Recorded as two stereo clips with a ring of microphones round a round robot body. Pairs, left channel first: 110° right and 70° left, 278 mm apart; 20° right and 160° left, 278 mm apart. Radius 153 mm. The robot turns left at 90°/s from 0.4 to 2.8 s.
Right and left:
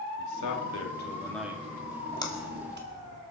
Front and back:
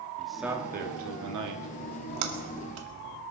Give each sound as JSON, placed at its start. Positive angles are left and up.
{"t": 0.2, "sound": "a man speaking", "azimuth_deg": -110, "distance_m": 2.5}
{"t": 1.8, "sound": "a splash", "azimuth_deg": -150, "distance_m": 2.0}